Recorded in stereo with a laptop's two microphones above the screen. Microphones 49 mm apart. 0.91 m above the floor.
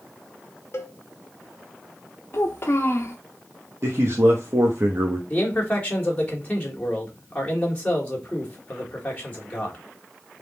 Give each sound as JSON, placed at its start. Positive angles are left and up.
{"t": 0.7, "sound": "a cowbell", "side_deg": 40, "distance_m": 1.1}
{"t": 2.3, "sound": "a child speaking", "side_deg": 50, "distance_m": 0.6}
{"t": 3.8, "sound": "a man speaking", "side_deg": -60, "distance_m": 0.8}
{"t": 5.3, "sound": "a man speaking", "side_deg": 25, "distance_m": 1.3}